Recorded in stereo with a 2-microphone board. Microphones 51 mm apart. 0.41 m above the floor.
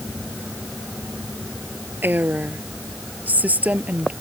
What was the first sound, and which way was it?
A woman speaking, 40° right (ahead or behind).